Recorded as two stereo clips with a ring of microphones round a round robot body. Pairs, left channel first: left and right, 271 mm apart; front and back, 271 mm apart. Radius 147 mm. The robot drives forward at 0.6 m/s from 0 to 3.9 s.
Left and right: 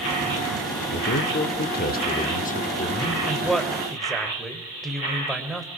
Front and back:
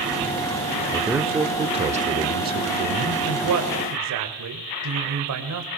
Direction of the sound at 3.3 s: Straight behind.